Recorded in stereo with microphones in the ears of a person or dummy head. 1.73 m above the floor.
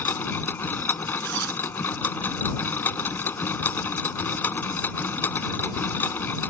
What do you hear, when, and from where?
0.0 s a machine running: 10° left (ahead or behind)
1.2 s a zipper: 65° right (ahead or behind)